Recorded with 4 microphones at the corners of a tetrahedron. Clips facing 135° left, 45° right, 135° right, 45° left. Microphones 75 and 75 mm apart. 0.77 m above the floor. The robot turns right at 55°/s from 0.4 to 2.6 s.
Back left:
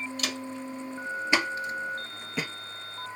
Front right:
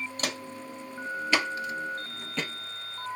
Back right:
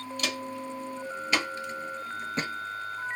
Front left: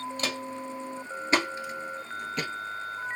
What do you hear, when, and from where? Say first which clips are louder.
0.2 s footsteps: back left 1 dB, even; 5° right, 1.3 m; by 3.2 s 115° right, 1.1 m